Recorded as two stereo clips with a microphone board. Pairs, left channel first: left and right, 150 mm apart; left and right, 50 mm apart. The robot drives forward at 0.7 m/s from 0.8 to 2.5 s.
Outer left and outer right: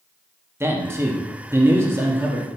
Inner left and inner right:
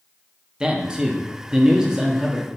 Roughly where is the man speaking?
Centre.